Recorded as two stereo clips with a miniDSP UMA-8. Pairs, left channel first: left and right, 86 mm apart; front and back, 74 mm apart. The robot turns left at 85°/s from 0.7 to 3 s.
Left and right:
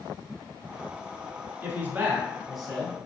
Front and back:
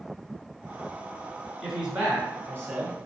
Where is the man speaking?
100° right, 1.3 m; by 3.0 s 145° left, 1.3 m.